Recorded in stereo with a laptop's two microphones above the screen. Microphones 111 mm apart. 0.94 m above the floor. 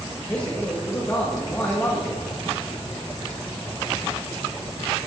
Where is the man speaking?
15° left (ahead or behind), 1.5 m.